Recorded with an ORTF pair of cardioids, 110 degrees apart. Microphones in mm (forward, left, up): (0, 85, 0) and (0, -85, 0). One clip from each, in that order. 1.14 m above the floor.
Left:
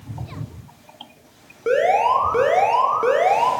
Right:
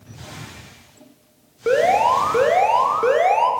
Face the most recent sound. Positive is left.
turn(degrees=-10)